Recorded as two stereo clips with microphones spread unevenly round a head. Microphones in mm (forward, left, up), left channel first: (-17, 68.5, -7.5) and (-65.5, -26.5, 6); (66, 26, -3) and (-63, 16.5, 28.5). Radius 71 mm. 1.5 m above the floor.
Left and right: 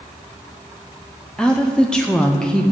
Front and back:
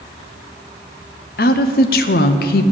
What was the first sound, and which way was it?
A woman speaking, 25° right.